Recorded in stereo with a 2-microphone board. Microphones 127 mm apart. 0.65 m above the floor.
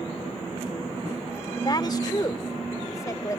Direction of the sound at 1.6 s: 35° left (ahead or behind).